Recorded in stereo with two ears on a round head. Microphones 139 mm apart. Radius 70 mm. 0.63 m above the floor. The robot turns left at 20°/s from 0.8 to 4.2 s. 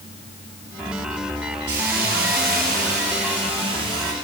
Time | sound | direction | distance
1.7 | a hiss | 105° right | 6.5 m